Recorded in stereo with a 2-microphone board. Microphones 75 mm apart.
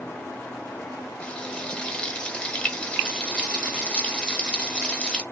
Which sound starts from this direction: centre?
Frying, at 1.2 s.